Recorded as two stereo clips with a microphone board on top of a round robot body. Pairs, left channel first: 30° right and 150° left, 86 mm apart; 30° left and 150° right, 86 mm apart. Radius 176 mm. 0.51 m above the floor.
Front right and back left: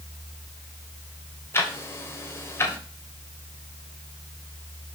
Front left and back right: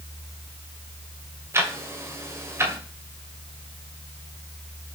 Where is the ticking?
90° right, 2.5 m.